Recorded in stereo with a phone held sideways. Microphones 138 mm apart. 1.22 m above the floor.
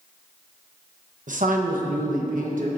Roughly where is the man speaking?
Right.